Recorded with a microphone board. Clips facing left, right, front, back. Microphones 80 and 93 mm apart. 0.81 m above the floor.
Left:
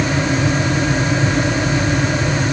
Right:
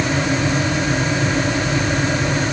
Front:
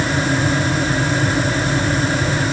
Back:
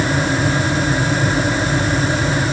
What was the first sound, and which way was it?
Only background noise.